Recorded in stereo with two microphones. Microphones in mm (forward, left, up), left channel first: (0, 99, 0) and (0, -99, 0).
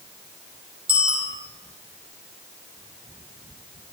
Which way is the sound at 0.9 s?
25° right (ahead or behind).